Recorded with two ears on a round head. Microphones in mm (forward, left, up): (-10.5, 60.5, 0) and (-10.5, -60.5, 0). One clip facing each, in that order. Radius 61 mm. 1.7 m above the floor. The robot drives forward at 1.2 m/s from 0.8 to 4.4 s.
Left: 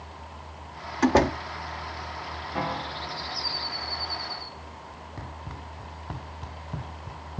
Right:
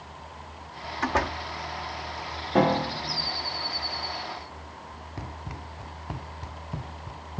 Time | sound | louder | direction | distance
1.0 | a door slam | left 7 dB | 45° left (ahead or behind) | ?
2.5 | a piano | right 9 dB | 65° right (ahead or behind) | ?
5.2 | running footsteps | right 3 dB | 15° right (ahead or behind) | ?